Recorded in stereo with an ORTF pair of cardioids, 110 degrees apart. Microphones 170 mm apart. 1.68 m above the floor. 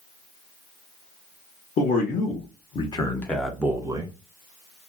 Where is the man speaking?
60° left, 1.1 m; by 4.2 s 30° right, 0.8 m.